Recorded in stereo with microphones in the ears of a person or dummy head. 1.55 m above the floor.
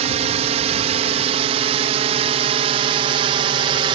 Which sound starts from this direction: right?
A drone, at 0.0 s.